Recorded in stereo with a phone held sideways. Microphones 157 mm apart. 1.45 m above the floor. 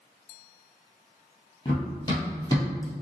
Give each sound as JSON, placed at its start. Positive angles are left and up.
{"t": 1.6, "sound": "running footsteps", "side_deg": 25, "distance_m": 1.7}